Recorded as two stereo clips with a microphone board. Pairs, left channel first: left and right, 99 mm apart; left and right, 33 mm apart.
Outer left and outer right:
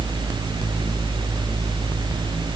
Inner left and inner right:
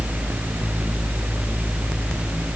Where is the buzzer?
I don't hear a buzzer.